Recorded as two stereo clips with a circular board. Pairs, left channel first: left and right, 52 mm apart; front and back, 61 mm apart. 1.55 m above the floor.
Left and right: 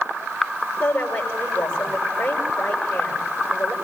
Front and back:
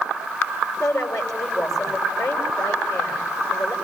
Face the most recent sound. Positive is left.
turn(degrees=20)